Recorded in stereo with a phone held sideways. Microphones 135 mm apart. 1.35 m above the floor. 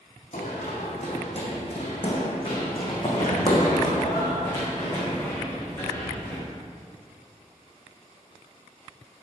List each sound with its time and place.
0.3 s running footsteps: 60° left (ahead or behind), 3 m; by 6.4 s 20° left (ahead or behind), 5 m